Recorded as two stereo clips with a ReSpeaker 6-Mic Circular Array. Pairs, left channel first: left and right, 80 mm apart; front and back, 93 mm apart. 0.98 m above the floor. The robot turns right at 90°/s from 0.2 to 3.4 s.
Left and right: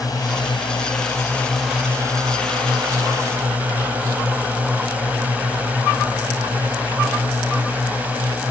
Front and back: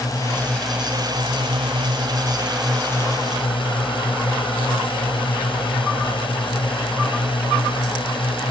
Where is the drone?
50° left; by 8.5 s 20° right.